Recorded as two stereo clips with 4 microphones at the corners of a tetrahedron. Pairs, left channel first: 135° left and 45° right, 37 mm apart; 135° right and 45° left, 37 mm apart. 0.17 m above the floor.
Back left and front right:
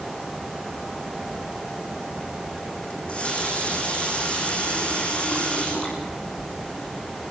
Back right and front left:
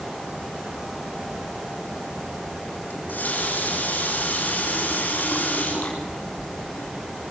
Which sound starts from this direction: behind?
A running tap, at 2.9 s.